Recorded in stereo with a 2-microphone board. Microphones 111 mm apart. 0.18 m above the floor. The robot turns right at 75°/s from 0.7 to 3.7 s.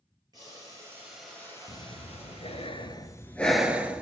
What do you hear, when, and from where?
0.3 s boiling: 40° right, 5 m; by 2.7 s 110° left, 5 m
1.7 s breathing: 40° left, 1.0 m; by 4.0 s 170° right, 1.0 m